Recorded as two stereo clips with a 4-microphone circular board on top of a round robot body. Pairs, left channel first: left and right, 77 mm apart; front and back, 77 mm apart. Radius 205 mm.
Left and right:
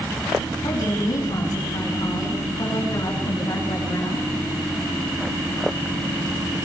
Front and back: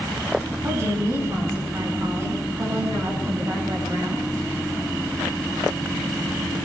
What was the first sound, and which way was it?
A woman speaking, 125° left.